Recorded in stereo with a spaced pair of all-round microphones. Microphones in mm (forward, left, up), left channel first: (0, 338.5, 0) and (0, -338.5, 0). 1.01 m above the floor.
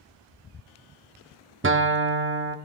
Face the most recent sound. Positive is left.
turn(degrees=-20)  # may be behind; listen again after turning